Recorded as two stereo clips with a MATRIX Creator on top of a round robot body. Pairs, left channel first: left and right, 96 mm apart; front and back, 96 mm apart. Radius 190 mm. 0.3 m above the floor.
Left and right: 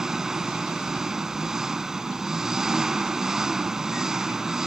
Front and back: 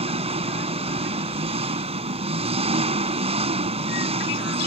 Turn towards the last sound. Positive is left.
turn(degrees=-175)